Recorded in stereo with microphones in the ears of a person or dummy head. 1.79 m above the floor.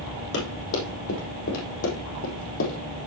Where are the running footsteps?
65° left (ahead or behind), 5 m.